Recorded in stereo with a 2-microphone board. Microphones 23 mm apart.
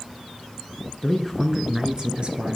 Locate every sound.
1.0 s a man speaking: 25° left (ahead or behind), 1.3 m; by 2.6 s 55° right (ahead or behind), 2 m